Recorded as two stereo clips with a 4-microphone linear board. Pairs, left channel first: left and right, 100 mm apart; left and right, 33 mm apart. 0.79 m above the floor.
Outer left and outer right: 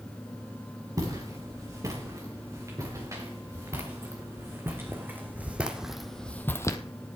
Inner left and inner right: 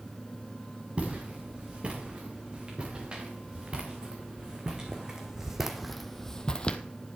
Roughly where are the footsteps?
Right.